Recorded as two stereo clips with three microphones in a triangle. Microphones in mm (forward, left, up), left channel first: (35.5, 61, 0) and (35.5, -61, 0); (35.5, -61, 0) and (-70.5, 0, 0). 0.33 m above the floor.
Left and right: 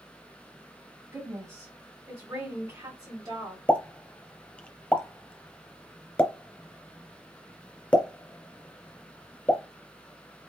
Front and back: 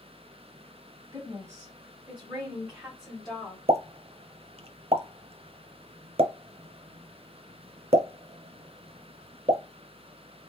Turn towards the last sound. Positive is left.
turn(degrees=170)